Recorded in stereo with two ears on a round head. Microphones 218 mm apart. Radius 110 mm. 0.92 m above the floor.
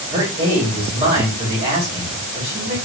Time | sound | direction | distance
0.1 | a man speaking | 25° right (ahead or behind) | 2.5 m